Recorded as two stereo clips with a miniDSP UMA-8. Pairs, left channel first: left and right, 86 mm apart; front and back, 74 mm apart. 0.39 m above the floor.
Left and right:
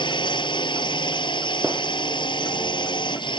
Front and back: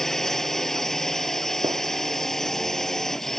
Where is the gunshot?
170° right.